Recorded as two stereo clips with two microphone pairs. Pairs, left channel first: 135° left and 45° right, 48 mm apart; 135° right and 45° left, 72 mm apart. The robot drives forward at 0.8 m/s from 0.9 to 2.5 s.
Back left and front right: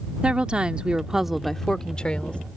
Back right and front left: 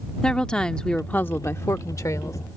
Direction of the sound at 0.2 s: 75° right.